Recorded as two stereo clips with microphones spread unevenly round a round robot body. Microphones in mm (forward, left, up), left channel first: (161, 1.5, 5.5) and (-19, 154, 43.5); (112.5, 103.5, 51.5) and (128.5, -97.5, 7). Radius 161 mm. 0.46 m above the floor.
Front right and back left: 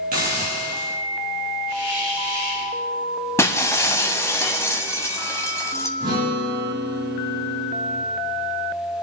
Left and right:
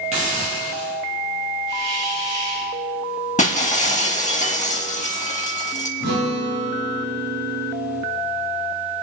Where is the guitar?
145° right, 4.5 m.